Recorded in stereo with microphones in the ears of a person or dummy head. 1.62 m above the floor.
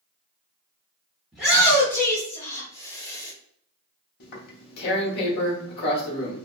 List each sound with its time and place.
1.3 s a shout: 10° right (ahead or behind), 0.8 m; by 3.3 s 20° left (ahead or behind), 1.7 m
4.2 s tearing paper: 55° left (ahead or behind), 0.9 m